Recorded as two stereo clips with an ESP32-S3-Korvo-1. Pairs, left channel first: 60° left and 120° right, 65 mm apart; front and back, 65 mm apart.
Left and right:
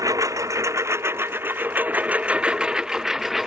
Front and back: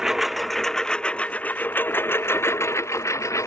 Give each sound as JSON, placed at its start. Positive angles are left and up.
{"t": 0.0, "sound": "a lawn mower", "azimuth_deg": -100}